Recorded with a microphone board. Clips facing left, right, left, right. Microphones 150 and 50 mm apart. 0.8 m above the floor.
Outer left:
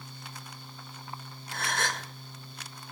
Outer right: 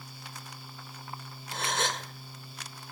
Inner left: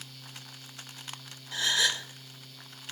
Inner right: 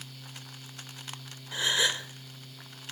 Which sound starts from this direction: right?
A gasp, at 1.5 s.